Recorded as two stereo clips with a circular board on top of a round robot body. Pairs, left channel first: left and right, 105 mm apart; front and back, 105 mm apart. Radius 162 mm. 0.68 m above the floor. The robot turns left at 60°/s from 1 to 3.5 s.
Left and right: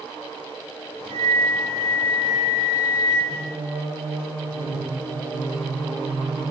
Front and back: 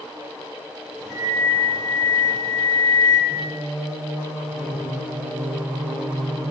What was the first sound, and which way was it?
A flute, 95° right.